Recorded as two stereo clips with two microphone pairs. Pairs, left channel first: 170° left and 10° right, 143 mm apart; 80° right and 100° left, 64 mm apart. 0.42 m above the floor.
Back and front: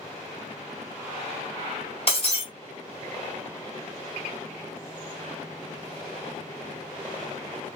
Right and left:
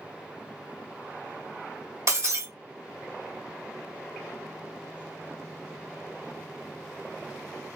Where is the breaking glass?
130° left, 1.3 m.